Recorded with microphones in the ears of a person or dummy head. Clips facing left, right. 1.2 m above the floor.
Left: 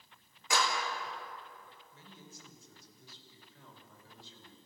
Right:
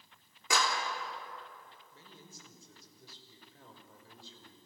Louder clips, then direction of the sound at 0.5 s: Even; 70° right (ahead or behind).